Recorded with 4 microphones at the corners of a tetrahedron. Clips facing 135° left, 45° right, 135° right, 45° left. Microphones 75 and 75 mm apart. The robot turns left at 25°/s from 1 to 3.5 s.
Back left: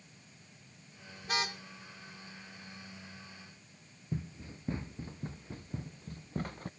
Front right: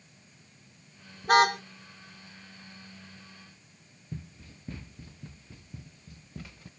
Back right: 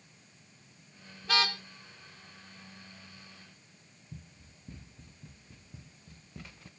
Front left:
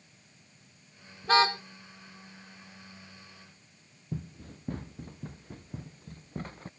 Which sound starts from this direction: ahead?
A car horn, at 1.2 s.